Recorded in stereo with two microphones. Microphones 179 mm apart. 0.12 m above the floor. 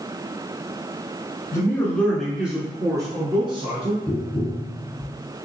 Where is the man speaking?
20° left (ahead or behind), 1.3 m; by 4.0 s 35° right (ahead or behind), 1.6 m.